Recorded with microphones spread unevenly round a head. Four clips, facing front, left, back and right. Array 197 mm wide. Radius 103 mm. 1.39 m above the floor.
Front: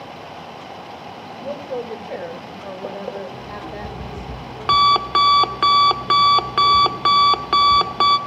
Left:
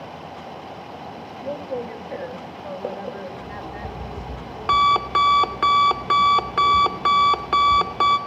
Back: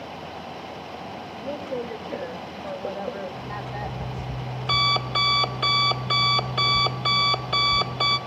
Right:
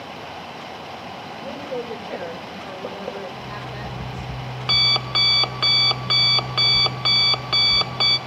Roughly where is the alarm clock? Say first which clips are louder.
Even, front 1 dB; ahead.